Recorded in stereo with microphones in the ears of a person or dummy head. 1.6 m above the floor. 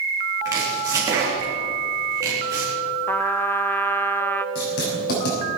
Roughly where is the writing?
Left.